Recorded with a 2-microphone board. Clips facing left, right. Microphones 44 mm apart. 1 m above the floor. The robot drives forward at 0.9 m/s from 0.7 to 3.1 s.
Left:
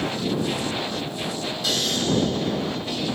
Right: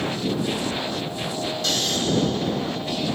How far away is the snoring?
About 3.5 m.